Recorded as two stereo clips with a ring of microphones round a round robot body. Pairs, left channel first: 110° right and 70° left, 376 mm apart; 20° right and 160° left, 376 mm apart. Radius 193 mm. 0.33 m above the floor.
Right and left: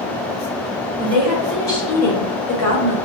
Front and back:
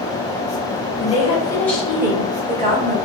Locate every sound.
1.0 s a woman speaking: 20° left, 1.4 m; by 3.0 s 140° right, 2 m